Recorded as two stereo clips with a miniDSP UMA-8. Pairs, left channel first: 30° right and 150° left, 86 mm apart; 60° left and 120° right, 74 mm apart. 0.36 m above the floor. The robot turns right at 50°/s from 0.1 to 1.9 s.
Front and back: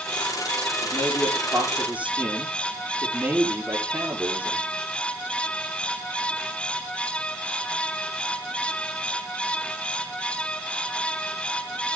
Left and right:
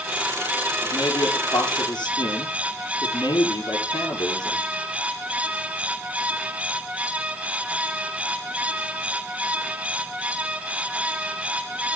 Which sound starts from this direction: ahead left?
A man speaking, at 0.8 s.